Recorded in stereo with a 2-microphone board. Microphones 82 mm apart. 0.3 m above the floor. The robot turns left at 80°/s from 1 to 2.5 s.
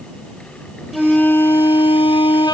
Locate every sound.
0.9 s a flute: straight behind; by 2.5 s 60° left